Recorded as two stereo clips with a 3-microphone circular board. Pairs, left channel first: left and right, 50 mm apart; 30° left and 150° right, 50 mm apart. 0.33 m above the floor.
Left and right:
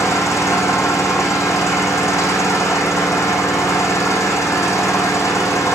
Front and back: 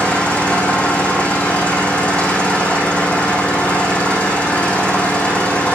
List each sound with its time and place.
0.0 s an engine running: 95° left, 5.5 m